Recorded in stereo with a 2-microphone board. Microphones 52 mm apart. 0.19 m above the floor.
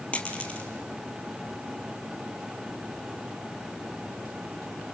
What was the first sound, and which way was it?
A dropped coin, 25° left (ahead or behind).